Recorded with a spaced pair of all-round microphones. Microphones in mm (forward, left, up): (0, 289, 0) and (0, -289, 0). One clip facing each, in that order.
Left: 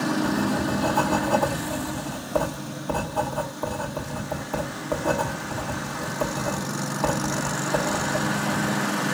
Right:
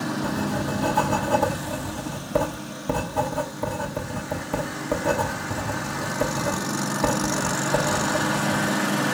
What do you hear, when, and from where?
0.2 s writing: 45° right (ahead or behind), 1.6 m